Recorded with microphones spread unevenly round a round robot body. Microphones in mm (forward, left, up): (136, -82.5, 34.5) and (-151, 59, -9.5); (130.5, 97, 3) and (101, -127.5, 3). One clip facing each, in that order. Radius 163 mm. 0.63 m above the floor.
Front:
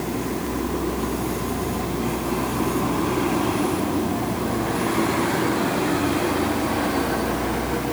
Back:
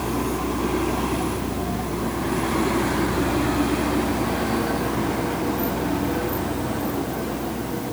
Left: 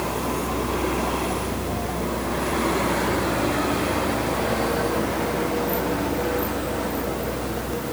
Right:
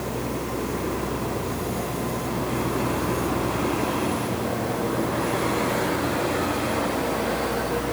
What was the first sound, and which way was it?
Only background noise.